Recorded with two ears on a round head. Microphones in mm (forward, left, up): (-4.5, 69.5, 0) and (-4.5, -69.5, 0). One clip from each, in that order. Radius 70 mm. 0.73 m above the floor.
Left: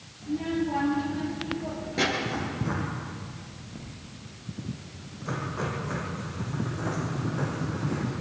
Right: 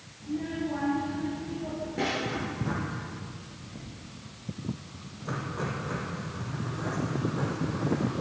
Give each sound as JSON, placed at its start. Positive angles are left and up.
{"t": 0.2, "sound": "a child speaking", "side_deg": 75, "distance_m": 9.5}
{"t": 2.2, "sound": "writing", "side_deg": 10, "distance_m": 6.5}